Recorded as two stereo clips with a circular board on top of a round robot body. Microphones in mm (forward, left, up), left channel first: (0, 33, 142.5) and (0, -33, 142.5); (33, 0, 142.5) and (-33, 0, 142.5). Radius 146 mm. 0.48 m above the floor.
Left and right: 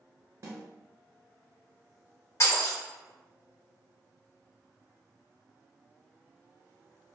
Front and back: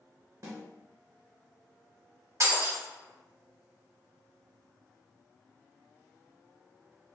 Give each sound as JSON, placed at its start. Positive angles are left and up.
{"t": 0.4, "sound": "a snare drum", "azimuth_deg": -135, "distance_m": 0.6}
{"t": 2.4, "sound": "breaking glass", "azimuth_deg": 140, "distance_m": 1.7}